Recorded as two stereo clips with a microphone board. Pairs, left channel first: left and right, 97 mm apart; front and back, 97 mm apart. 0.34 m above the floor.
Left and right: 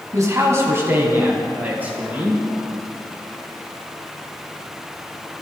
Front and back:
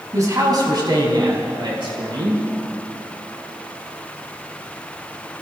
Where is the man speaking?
135° right, 2.5 m; by 2.4 s 160° right, 5.5 m.